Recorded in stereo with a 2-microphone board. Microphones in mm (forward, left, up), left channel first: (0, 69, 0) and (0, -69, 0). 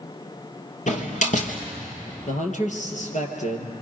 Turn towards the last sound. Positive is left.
turn(degrees=60)  # may be behind; listen again after turning